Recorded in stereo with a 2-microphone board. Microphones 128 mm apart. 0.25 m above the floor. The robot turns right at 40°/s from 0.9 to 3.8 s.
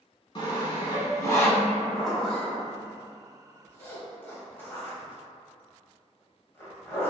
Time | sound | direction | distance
0.3 | sawing | 40° left (ahead or behind) | 0.6 m
1.9 | a zipper | centre (ahead or behind) | 0.8 m